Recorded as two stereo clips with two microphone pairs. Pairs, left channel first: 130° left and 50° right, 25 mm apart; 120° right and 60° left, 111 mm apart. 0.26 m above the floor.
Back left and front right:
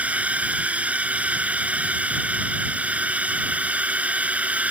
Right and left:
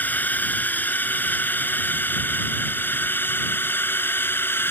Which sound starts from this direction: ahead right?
A drone, at 0.0 s.